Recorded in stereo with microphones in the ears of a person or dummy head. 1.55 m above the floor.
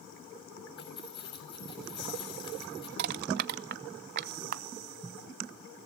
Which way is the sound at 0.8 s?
35° left (ahead or behind).